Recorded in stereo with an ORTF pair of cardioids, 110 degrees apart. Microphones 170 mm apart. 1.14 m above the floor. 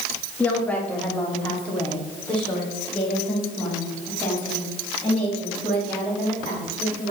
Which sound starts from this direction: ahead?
A woman speaking, at 0.4 s.